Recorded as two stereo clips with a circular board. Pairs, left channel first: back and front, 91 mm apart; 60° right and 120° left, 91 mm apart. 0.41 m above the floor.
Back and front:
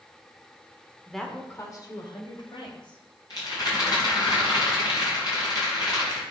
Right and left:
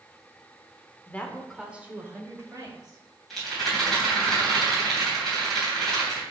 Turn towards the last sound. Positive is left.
turn(degrees=-145)